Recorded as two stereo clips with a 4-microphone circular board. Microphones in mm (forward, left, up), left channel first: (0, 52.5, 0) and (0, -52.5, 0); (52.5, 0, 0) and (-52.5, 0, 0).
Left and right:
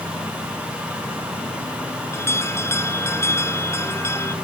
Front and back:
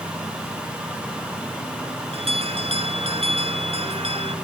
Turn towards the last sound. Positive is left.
turn(degrees=155)